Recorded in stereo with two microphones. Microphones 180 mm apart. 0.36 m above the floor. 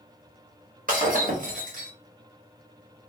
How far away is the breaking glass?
About 1.0 m.